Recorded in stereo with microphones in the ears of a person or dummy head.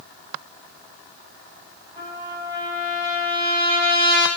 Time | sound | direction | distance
2.0 | a trumpet | 30° right (ahead or behind) | 3.5 m